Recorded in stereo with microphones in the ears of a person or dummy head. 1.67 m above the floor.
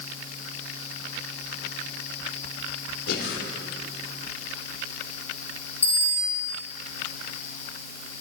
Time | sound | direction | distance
3.1 | breathing | 70° left (ahead or behind) | 3 m
5.8 | a bicycle bell | 10° left (ahead or behind) | 4 m